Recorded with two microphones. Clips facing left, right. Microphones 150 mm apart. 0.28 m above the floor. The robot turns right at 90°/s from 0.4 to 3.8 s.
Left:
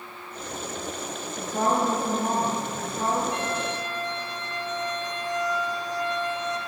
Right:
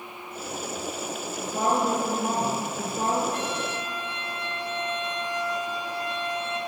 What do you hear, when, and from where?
1.4 s a woman speaking: 175° left, 4 m; by 3.2 s 20° right, 4 m
3.3 s a violin: 100° left, 3 m; by 6.6 s 145° left, 3 m